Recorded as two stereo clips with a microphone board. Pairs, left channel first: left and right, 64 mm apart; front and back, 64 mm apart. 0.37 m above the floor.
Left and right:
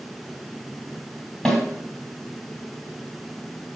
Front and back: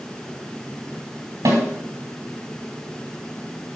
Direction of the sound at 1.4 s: 175° left.